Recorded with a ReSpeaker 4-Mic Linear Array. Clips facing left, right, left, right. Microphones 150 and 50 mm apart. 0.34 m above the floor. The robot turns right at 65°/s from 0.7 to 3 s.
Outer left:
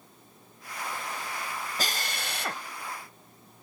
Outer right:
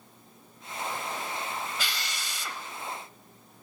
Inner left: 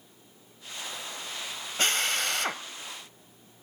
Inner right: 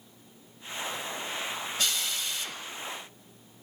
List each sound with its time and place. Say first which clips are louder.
1.8 s a drill: outer left 3 dB, inner left 8 dB; 50° left, 1.2 m; by 2.6 s 100° left, 1.2 m